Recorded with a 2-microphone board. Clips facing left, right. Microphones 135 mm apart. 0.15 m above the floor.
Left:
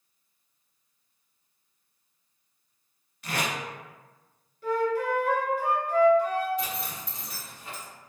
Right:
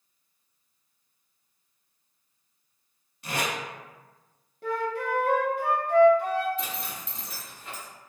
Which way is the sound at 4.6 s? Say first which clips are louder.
Left 3 dB; 55° right (ahead or behind).